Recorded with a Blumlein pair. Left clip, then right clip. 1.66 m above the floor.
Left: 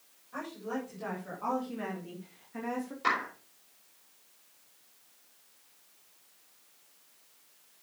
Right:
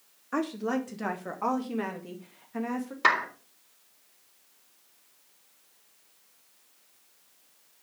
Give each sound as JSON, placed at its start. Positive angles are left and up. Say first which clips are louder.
{"t": 0.3, "sound": "a woman speaking", "louder": "right 8 dB", "azimuth_deg": -40, "distance_m": 3.0}
{"t": 3.0, "sound": "a clap", "louder": "right 6 dB", "azimuth_deg": -30, "distance_m": 3.5}